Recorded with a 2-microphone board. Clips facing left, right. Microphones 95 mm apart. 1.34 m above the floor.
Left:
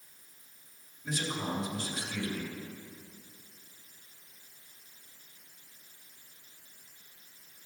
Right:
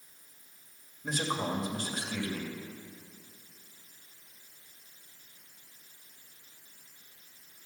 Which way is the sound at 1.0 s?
50° right (ahead or behind).